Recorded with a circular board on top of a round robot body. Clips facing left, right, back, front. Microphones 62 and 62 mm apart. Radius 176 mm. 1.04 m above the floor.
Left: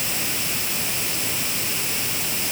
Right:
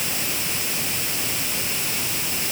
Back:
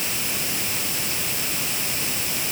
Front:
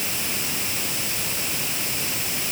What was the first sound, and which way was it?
Only background noise.